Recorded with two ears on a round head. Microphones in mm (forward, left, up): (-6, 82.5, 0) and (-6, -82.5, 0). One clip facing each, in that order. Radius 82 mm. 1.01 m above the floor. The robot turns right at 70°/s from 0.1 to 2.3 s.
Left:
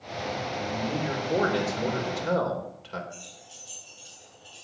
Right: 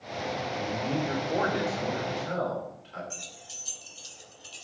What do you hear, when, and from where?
0.6 s a man speaking: 25° right, 4 m; by 3.0 s 95° left, 4 m
3.1 s keys jangling: 85° right, 3.5 m